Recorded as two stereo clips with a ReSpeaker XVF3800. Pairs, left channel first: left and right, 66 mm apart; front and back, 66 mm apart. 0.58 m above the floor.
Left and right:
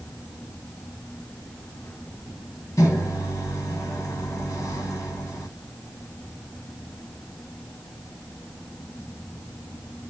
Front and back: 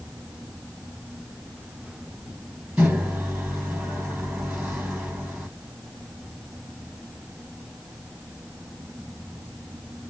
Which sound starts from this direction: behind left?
A microwave, at 2.8 s.